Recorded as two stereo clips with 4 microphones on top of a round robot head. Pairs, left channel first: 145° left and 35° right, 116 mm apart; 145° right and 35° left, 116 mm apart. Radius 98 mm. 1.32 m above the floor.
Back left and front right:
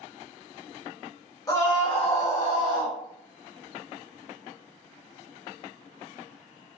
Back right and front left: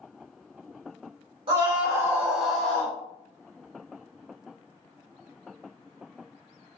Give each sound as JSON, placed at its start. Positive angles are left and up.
{"t": 1.5, "sound": "a scream", "azimuth_deg": 85, "distance_m": 1.4}